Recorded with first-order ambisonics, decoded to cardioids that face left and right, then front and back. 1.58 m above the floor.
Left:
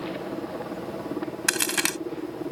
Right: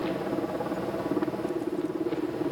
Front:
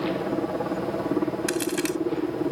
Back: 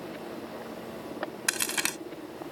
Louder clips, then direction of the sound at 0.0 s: Right 3 dB, front 12 dB; 15° right.